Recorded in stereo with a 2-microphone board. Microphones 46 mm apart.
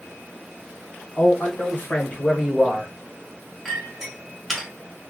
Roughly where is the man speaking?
Left.